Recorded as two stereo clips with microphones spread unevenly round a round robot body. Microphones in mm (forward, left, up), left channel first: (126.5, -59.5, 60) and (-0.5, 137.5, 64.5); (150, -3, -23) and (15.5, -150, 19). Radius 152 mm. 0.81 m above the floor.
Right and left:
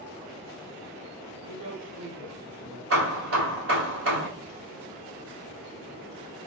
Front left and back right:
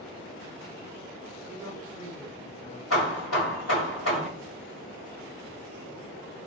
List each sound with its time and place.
1.5 s a woman speaking: 90° left, 1.9 m; by 2.8 s 110° left, 1.5 m
2.9 s hammering: 95° left, 1.8 m